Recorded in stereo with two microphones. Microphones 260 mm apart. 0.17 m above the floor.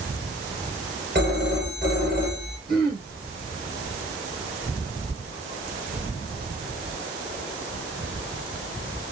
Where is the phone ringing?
40° right (ahead or behind), 3 m.